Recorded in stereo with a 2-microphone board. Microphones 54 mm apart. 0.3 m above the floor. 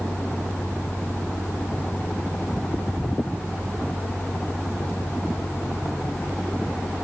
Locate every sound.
Only background noise.